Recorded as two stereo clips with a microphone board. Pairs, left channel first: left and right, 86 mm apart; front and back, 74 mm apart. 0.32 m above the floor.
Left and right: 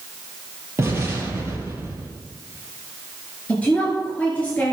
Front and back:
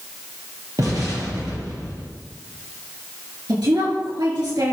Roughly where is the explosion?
Behind right.